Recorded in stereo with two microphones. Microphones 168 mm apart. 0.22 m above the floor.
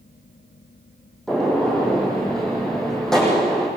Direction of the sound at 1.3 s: 5° left (ahead or behind).